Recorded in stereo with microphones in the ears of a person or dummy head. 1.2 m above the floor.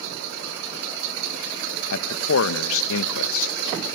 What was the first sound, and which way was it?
A man speaking, 70° left (ahead or behind).